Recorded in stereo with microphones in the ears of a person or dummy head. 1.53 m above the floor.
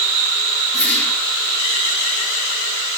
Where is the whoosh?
Centre (ahead or behind), 8.5 m.